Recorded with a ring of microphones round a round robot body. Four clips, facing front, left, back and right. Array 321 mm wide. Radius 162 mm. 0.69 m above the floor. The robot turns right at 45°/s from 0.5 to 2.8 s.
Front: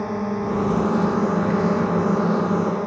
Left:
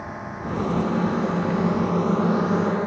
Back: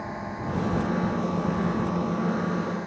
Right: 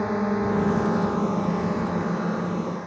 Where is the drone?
55° right; by 2.9 s 50° left.